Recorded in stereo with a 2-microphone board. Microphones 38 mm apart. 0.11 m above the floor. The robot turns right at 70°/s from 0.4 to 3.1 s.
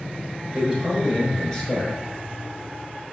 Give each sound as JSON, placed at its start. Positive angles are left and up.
{"t": 0.5, "sound": "a man speaking", "azimuth_deg": -45, "distance_m": 1.3}